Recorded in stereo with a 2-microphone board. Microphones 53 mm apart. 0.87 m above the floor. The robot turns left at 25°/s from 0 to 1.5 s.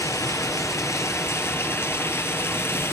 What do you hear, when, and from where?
0.0 s running water: 90° left, 2.5 m; by 2.9 s 50° left, 2.5 m